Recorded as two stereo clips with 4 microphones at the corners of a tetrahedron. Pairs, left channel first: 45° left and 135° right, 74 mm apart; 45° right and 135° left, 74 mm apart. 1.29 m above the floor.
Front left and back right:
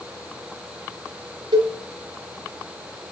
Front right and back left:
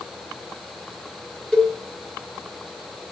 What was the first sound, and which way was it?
A cowbell, 125° right.